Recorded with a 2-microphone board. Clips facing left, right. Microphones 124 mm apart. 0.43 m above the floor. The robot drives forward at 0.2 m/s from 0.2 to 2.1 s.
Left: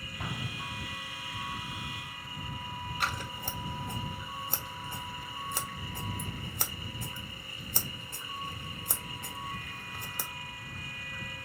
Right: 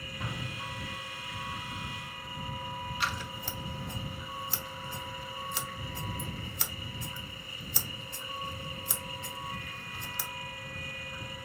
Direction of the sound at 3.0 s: 45° left (ahead or behind).